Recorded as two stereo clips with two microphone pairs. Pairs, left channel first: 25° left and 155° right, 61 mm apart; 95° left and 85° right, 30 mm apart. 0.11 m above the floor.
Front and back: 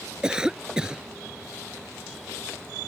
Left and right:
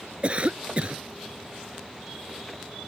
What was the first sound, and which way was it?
A cough, 80° right.